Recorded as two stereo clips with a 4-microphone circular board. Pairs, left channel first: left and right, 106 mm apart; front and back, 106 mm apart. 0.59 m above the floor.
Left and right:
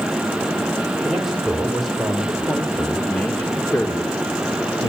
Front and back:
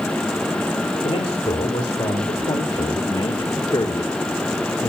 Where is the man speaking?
5° right, 3 m; by 4.9 s 45° left, 1.8 m.